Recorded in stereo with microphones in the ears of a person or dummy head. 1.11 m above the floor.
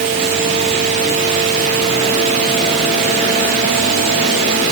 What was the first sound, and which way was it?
Only background noise.